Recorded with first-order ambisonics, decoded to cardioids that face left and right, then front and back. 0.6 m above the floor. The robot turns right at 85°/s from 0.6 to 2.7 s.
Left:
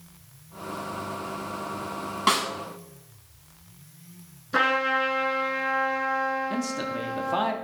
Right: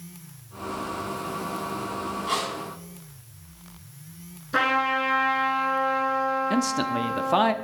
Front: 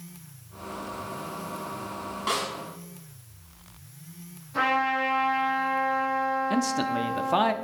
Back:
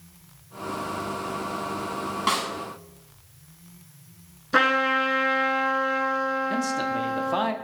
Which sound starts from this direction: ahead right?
A man speaking, at 6.5 s.